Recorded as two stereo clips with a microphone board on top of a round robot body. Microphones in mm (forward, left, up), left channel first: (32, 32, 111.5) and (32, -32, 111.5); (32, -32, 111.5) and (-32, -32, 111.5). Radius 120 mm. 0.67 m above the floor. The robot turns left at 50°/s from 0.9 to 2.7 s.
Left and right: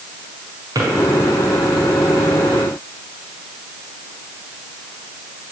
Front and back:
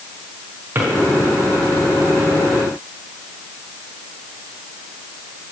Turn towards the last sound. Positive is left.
turn(degrees=145)